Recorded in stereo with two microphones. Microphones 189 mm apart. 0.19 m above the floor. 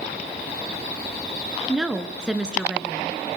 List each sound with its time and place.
1.7 s a woman speaking: 5° right (ahead or behind), 2.5 m